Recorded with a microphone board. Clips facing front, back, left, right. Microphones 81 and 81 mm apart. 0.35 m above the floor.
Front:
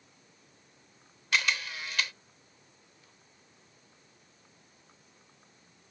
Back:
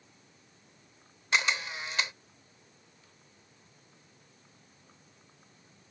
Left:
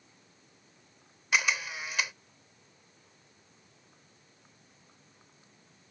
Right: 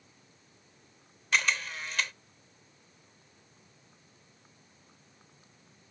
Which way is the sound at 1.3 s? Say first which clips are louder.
Back 1 dB, even; 155° left.